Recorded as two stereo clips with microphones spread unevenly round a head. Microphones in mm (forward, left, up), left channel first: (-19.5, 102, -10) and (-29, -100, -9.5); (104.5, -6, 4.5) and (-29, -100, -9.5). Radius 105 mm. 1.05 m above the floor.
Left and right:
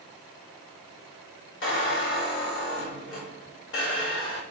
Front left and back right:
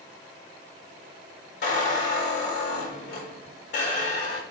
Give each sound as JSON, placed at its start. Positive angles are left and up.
{"t": 1.6, "sound": "a squeak", "azimuth_deg": 55, "distance_m": 1.7}